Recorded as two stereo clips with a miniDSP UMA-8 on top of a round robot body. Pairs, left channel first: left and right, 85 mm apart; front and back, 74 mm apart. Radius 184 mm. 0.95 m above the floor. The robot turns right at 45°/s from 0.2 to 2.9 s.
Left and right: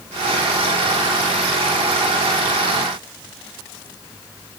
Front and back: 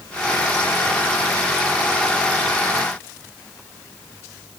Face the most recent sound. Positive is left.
No sound to turn to.